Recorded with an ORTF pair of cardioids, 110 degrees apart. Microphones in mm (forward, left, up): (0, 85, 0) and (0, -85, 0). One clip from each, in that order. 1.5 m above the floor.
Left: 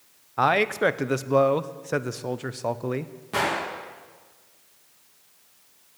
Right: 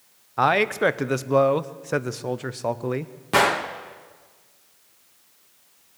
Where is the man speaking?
5° right, 0.6 m.